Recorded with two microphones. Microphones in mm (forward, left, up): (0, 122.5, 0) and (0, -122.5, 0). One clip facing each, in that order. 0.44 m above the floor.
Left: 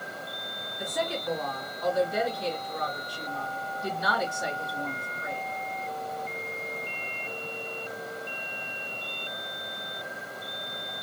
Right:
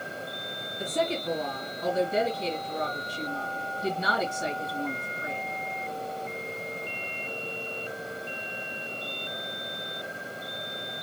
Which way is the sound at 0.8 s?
25° right (ahead or behind).